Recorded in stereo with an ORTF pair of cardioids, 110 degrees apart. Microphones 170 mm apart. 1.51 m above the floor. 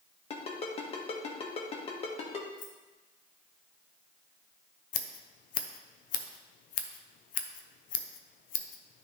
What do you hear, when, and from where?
0.3 s a ringtone: 40° left, 1.4 m
2.6 s keys jangling: 55° left, 1.3 m
4.9 s scissors: 60° left, 0.7 m